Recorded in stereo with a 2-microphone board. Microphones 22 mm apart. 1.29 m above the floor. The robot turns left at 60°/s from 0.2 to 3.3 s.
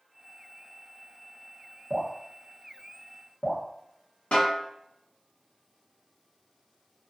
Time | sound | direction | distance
1.9 | dripping | 50° right (ahead or behind) | 1.1 m
4.3 | a snare drum | 70° left (ahead or behind) | 0.9 m